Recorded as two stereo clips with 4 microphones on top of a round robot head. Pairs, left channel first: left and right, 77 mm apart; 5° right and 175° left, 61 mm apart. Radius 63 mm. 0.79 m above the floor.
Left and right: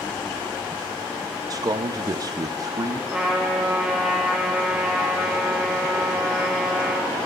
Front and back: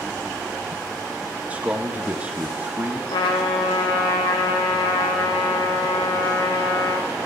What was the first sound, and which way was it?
A man speaking, 120° right.